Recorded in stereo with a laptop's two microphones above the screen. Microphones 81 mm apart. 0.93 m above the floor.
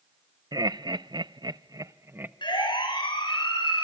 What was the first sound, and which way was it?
Laughter, 55° right (ahead or behind).